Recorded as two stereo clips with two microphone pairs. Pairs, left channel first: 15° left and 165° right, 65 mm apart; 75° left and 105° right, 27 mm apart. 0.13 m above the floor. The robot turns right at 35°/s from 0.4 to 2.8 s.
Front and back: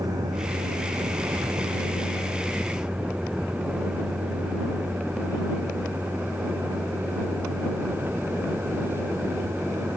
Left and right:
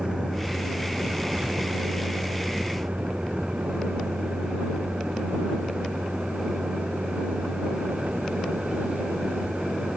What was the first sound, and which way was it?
A vehicle, 155° right.